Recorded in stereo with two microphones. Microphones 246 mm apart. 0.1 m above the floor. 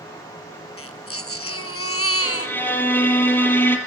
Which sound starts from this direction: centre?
A violin, at 2.2 s.